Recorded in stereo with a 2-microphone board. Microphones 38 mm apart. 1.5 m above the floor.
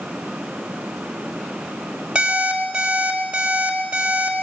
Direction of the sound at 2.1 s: 25° right (ahead or behind).